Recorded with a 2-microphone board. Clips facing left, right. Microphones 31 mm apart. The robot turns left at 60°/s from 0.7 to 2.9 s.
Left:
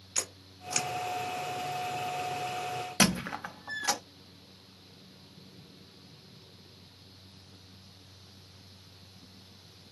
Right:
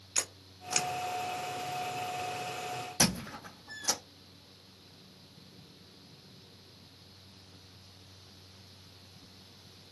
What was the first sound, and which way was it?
A camera shutter, 20° right (ahead or behind).